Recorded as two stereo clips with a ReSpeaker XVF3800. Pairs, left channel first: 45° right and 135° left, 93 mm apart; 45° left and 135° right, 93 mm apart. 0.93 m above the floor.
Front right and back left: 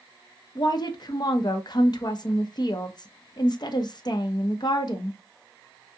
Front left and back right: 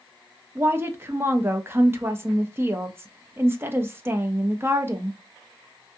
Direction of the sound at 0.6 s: 75° right.